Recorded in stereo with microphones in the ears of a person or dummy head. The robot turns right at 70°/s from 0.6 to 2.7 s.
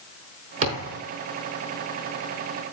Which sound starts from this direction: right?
A thud, at 0.6 s.